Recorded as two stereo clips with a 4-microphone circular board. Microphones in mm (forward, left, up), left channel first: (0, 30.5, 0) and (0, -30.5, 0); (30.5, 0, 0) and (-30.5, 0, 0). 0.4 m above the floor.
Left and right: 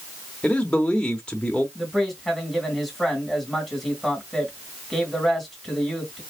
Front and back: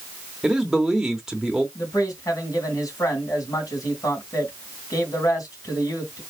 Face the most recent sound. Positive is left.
turn(degrees=0)